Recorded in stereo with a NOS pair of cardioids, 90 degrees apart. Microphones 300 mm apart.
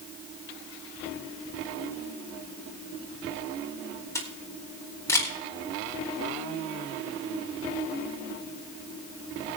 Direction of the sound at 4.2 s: 10° left.